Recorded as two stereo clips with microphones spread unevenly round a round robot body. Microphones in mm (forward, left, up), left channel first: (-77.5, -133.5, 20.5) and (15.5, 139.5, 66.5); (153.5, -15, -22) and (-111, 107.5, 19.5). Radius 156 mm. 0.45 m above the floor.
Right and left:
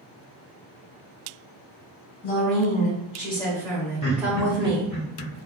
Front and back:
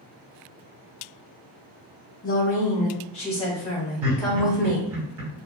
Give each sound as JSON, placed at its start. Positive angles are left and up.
{"t": 2.2, "sound": "a woman speaking", "azimuth_deg": -75, "distance_m": 1.8}
{"t": 4.0, "sound": "laughter", "azimuth_deg": -160, "distance_m": 2.0}